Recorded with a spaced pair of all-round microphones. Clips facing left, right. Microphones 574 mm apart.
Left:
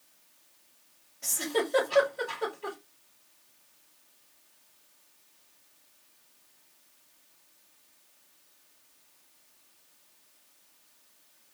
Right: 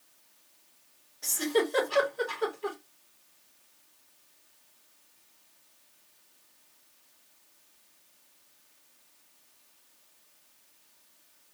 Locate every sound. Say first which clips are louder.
1.2 s a giggle: right 3 dB; 45° left (ahead or behind), 3.5 m